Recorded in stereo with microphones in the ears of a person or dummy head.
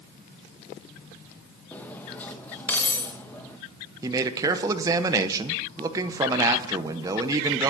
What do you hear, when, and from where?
1.7 s cutlery clinking: 10° left (ahead or behind), 0.8 m
4.0 s a man speaking: 20° right (ahead or behind), 0.8 m